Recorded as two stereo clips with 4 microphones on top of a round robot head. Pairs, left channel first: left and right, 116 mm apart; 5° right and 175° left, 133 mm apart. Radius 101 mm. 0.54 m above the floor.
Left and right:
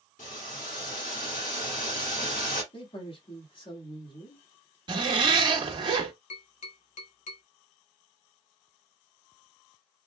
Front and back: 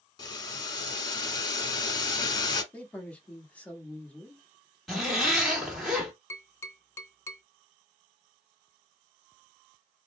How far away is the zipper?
About 1.3 m.